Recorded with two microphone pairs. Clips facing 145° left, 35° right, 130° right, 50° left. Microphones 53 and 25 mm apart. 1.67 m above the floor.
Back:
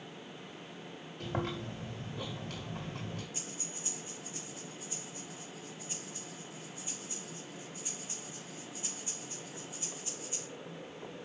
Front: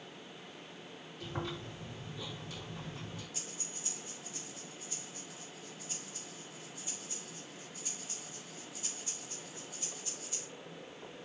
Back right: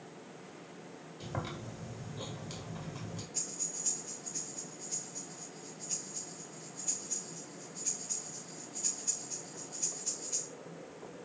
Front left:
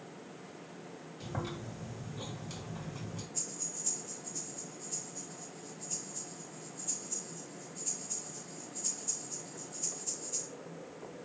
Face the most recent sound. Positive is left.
turn(degrees=-145)